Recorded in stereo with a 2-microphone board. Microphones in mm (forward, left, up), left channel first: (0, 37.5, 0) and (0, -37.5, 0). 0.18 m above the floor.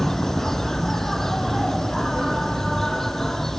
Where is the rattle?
I don't hear a rattle.